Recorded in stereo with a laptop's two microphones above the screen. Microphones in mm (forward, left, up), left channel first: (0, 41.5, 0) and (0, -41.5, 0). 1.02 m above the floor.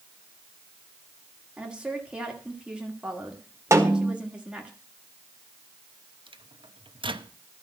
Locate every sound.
1.6 s a woman speaking: 10° right (ahead or behind), 1.6 m
3.7 s a snare drum: 35° right (ahead or behind), 1.7 m
6.3 s a microwave: 85° right, 0.7 m